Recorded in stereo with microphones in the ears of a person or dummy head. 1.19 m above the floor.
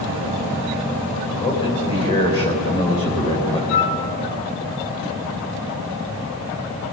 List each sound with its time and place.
1.4 s a man speaking: 25° left (ahead or behind), 4.5 m
3.7 s a flute: 75° left (ahead or behind), 6 m